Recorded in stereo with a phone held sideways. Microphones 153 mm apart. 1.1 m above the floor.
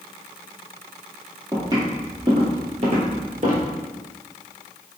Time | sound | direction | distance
1.5 | footsteps | 25° right (ahead or behind) | 1.9 m